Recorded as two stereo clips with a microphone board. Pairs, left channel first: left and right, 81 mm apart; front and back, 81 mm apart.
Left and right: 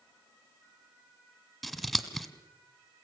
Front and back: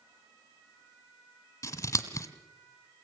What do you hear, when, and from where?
1.6 s scissors: straight ahead, 1.7 m